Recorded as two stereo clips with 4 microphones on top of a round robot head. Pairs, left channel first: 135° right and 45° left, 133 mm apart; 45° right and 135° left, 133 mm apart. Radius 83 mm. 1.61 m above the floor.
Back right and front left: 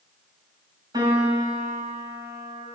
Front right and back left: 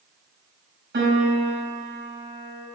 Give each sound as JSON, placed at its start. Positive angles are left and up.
{"t": 0.9, "sound": "a piano", "azimuth_deg": 110, "distance_m": 5.5}